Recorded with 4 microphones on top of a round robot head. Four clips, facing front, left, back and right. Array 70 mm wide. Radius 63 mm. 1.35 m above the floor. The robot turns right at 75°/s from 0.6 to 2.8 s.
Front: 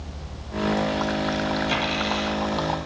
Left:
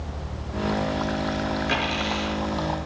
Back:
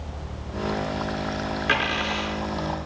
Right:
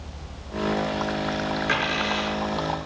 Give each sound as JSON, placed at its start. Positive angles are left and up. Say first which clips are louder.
{"t": 1.7, "sound": "a dropped coin", "louder": "right 1 dB, back 1 dB", "azimuth_deg": -170, "distance_m": 5.0}